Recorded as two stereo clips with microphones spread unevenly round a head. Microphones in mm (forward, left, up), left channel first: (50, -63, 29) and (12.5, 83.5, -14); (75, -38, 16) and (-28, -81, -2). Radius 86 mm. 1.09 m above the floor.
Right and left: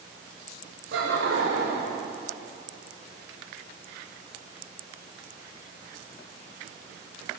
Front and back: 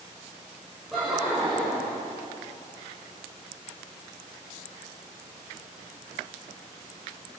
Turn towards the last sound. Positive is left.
turn(degrees=120)